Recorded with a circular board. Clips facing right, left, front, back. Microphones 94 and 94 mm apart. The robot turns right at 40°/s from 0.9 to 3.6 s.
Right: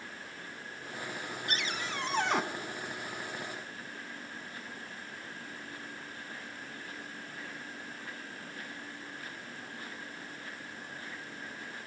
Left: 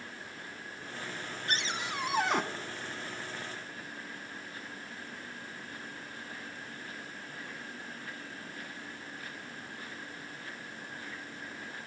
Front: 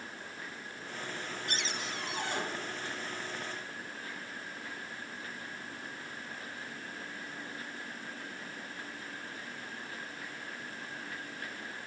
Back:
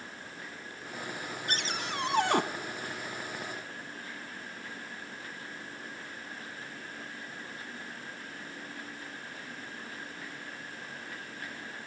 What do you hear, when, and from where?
1.5 s a cupboard door: 145° left, 0.8 m; by 2.4 s 175° right, 0.8 m